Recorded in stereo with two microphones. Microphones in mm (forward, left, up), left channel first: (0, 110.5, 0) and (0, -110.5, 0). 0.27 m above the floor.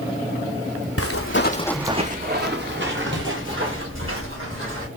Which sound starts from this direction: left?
Footsteps, at 1.0 s.